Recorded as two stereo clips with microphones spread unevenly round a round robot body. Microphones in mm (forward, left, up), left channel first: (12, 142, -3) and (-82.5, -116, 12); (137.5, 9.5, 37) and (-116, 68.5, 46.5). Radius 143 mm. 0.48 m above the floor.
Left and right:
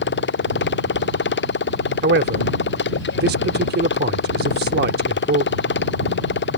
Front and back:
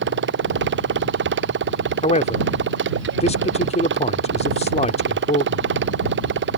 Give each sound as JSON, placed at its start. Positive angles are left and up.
{"t": 0.0, "sound": "a motorcycle", "azimuth_deg": 120}
{"t": 2.0, "sound": "a man speaking", "azimuth_deg": -65}